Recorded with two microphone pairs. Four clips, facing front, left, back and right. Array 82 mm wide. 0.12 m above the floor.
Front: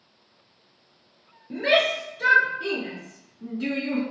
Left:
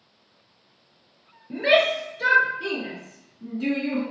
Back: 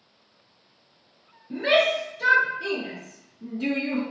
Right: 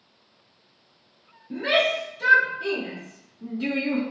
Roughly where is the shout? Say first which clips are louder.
Left 3 dB, back 1 dB; ahead left.